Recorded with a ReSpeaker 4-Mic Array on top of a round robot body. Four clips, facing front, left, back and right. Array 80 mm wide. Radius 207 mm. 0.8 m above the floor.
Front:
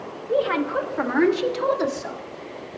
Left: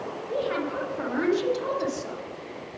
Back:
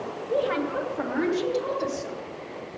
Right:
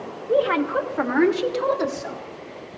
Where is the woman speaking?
75° right, 2.5 m; by 2.2 s 35° right, 4 m.